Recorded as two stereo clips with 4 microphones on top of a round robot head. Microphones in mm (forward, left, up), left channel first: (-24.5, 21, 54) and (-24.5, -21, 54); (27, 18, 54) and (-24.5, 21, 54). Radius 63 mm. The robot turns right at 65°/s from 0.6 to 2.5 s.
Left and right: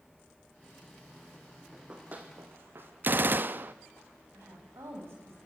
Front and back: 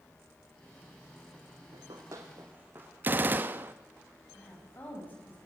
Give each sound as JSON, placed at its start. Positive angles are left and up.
{"t": 1.7, "sound": "running footsteps", "azimuth_deg": -165, "distance_m": 3.0}
{"t": 3.0, "sound": "a gunshot", "azimuth_deg": -130, "distance_m": 1.1}
{"t": 4.3, "sound": "a woman speaking", "azimuth_deg": -60, "distance_m": 7.5}